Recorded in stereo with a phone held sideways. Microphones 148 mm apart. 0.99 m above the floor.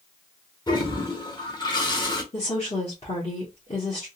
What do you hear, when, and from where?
0.7 s a toilet flushing: 30° left (ahead or behind), 1.2 m
2.3 s a woman speaking: 45° left (ahead or behind), 1.4 m